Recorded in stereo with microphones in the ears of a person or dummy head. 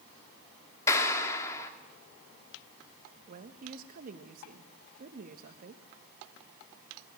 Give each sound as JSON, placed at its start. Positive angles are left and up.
{"t": 0.9, "sound": "a clap", "side_deg": 20, "distance_m": 3.0}
{"t": 3.3, "sound": "a woman speaking", "side_deg": -55, "distance_m": 1.7}